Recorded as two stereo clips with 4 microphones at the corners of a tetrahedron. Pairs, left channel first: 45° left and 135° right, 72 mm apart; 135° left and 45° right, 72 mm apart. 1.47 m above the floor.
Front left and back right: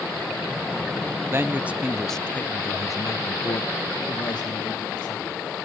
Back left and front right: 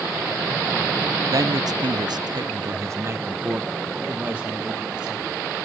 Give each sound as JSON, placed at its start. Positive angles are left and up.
{"t": 1.3, "sound": "a man speaking", "azimuth_deg": -80, "distance_m": 0.7}